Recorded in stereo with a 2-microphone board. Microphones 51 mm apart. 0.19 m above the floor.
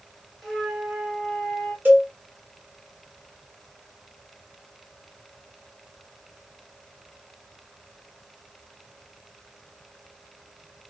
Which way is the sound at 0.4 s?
Centre (ahead or behind).